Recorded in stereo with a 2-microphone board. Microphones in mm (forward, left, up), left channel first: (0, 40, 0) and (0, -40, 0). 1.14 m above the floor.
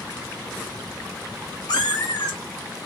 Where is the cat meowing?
60° left (ahead or behind), 1.1 m; by 2.9 s 70° left (ahead or behind), 1.1 m.